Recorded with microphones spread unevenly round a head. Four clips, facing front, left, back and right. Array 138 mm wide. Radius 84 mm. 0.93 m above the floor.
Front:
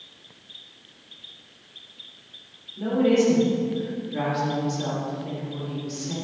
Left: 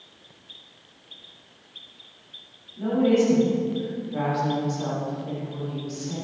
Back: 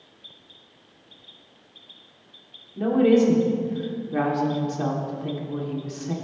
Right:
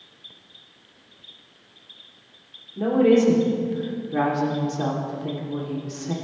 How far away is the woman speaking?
About 3 m.